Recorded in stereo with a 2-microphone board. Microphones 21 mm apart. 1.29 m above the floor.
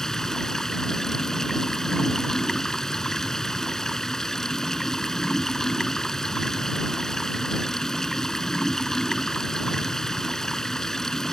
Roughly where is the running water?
Left.